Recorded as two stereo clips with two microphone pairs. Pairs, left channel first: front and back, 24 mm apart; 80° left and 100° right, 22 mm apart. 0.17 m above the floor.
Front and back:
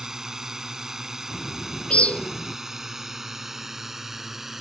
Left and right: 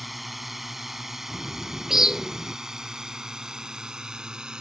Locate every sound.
0.0 s a drone: 175° right; by 4.6 s 110° right
1.3 s a bird: 30° right